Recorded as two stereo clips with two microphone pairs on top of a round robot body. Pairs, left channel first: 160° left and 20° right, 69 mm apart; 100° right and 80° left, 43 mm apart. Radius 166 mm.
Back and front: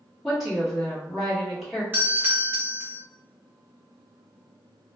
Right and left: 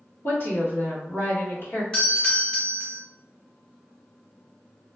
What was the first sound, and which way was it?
A woman speaking, 110° right.